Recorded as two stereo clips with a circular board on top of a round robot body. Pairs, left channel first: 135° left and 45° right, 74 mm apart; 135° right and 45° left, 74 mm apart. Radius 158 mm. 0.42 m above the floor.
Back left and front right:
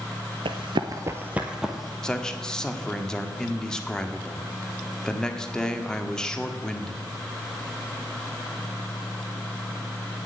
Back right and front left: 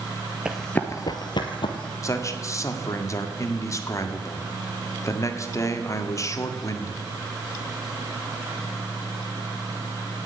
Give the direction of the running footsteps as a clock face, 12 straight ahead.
1 o'clock.